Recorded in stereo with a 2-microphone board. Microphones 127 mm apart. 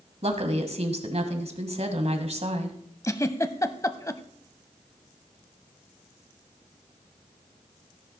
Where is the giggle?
25° left (ahead or behind), 0.7 m.